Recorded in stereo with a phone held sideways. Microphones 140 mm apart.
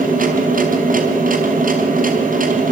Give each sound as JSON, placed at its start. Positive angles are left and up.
{"t": 0.0, "sound": "a machine running", "side_deg": -80, "distance_m": 4.0}